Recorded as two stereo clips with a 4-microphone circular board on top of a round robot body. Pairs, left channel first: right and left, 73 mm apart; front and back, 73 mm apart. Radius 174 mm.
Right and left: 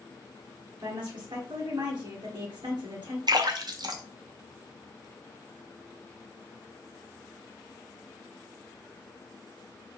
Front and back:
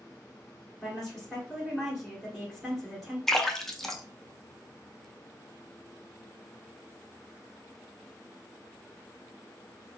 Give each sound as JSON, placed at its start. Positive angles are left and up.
{"t": 0.8, "sound": "a woman speaking", "azimuth_deg": 95, "distance_m": 2.0}
{"t": 3.3, "sound": "a splash", "azimuth_deg": 85, "distance_m": 0.8}